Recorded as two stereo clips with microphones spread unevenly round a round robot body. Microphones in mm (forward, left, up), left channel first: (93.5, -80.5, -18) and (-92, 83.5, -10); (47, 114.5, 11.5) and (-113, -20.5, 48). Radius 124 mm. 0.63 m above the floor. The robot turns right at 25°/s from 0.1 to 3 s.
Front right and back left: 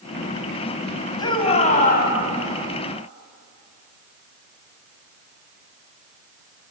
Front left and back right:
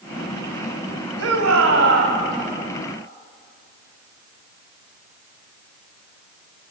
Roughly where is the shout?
Behind right.